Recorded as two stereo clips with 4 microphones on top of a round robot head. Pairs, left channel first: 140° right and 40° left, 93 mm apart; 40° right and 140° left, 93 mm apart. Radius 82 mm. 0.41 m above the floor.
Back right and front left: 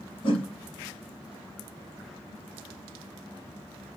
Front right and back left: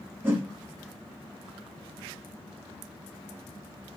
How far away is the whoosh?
About 0.9 m.